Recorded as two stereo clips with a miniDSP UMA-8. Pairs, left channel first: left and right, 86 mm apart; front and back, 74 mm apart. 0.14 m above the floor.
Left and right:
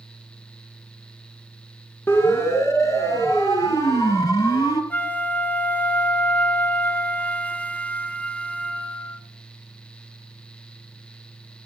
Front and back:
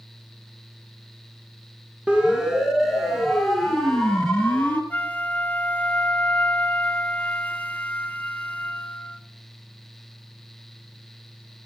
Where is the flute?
45° left, 0.9 m.